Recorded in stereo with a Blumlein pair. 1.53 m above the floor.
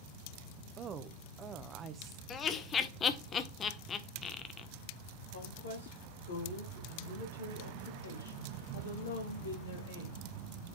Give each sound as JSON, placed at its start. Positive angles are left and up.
{"t": 0.8, "sound": "a woman speaking", "azimuth_deg": -25, "distance_m": 1.0}
{"t": 2.3, "sound": "laughter", "azimuth_deg": 25, "distance_m": 1.1}
{"t": 5.3, "sound": "a woman speaking", "azimuth_deg": 65, "distance_m": 3.0}